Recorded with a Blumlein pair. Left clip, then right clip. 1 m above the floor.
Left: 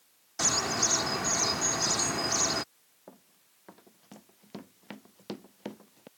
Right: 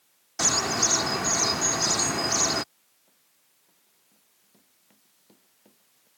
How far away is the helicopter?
I don't hear a helicopter.